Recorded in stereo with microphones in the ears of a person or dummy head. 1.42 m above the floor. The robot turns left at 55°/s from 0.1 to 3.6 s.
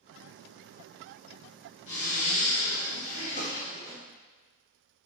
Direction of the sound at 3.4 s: 60° left (ahead or behind).